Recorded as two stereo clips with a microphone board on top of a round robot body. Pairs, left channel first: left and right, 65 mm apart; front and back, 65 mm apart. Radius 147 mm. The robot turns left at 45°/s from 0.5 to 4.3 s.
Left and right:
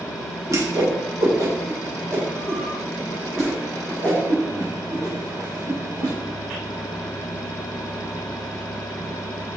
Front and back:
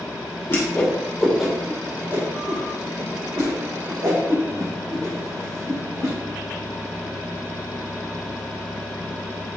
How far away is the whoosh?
About 2.5 m.